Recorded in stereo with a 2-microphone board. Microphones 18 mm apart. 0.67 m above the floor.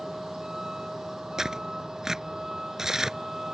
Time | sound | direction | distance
0.0 | a vehicle | 45° right (ahead or behind) | ?
1.4 | tearing paper | 25° right (ahead or behind) | ?